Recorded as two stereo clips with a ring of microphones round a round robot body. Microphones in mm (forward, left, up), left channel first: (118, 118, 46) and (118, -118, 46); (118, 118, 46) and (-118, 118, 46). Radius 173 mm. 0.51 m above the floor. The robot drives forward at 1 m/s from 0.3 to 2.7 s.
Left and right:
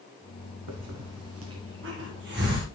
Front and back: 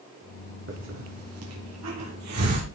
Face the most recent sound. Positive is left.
turn(degrees=-150)